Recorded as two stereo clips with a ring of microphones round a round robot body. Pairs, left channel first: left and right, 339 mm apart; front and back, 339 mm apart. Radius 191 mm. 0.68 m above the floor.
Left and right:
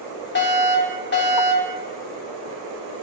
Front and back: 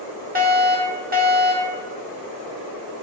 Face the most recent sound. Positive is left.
turn(degrees=130)